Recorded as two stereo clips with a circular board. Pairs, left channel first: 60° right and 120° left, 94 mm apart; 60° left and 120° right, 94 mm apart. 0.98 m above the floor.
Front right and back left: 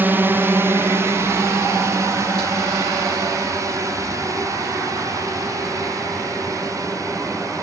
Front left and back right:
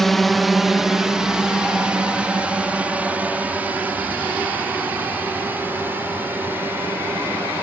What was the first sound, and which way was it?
A drone, 145° left.